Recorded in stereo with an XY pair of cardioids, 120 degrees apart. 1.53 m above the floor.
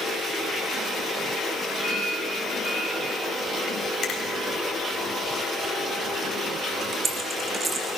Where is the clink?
35° left, 10 m.